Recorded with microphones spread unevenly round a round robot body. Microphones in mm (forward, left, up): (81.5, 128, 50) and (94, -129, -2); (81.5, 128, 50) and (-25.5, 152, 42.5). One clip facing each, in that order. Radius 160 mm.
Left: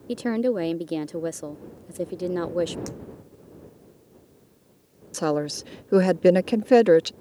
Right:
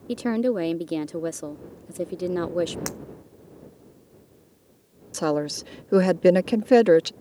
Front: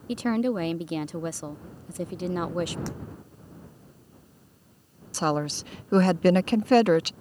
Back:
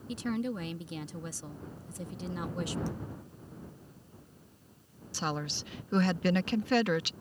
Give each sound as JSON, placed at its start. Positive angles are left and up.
{"t": 0.1, "sound": "a woman speaking", "azimuth_deg": -10}
{"t": 2.9, "sound": "breaking glass", "azimuth_deg": -75}
{"t": 5.1, "sound": "a woman speaking", "azimuth_deg": -10}